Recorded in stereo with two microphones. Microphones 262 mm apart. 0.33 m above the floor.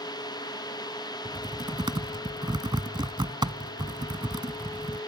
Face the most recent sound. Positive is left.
turn(degrees=-15)  # may be behind; listen again after turning